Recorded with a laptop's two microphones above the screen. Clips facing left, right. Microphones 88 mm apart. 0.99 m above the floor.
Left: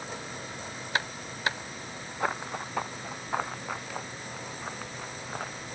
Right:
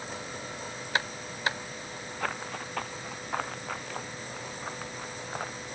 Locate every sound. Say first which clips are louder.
2.2 s running footsteps: left 4 dB; 20° left (ahead or behind); by 5.6 s 5° right (ahead or behind)